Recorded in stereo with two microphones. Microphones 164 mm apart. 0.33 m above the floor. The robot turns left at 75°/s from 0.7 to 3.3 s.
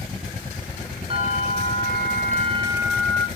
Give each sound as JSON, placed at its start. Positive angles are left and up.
{"t": 1.1, "sound": "a bell", "azimuth_deg": -35, "distance_m": 2.5}